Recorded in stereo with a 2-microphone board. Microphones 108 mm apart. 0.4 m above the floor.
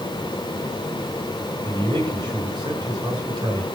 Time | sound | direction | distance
1.6 | a man speaking | 40° right (ahead or behind) | 5.5 m